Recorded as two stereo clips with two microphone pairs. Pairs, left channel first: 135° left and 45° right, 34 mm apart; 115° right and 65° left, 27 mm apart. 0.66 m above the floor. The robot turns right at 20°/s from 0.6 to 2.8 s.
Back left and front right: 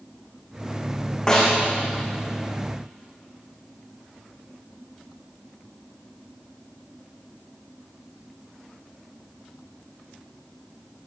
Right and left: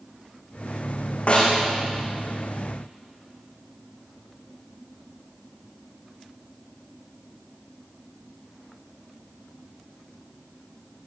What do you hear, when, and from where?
1.3 s a snare drum: 155° right, 9.5 m; by 1.6 s 150° right, 9.5 m